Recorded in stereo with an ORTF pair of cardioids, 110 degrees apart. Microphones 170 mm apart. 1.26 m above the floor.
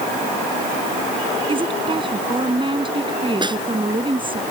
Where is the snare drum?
25° right.